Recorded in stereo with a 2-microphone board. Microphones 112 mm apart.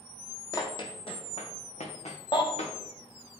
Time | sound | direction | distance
0.5 | running footsteps | 30° left (ahead or behind) | 1.4 m
2.3 | a baby crying | 40° left (ahead or behind) | 1.6 m